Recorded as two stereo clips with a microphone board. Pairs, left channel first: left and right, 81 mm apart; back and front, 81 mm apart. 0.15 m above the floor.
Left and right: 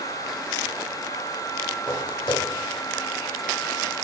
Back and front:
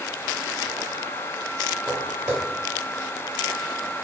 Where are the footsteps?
70° left, 1.3 m.